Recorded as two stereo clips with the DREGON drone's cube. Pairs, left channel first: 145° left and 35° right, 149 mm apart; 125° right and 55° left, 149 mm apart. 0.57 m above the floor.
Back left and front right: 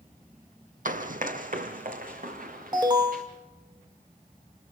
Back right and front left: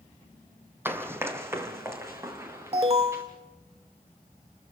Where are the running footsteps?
20° right, 1.3 m; by 3.2 s 15° right, 3.5 m.